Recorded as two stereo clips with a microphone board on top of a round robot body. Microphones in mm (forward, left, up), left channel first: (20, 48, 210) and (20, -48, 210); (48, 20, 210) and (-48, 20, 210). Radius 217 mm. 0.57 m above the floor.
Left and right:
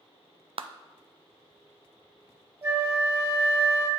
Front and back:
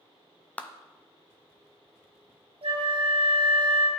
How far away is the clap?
About 0.6 m.